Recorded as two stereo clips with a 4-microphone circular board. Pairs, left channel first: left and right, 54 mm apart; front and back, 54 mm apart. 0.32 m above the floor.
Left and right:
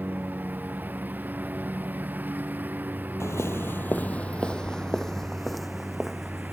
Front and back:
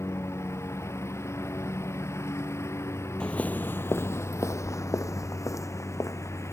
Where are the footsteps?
70° left; by 6.5 s 5° right.